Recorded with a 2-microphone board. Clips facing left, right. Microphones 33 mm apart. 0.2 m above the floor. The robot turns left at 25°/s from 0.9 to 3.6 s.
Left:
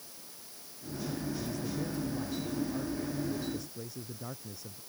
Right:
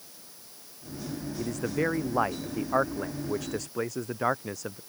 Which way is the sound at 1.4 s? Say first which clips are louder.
Right 7 dB; 60° right.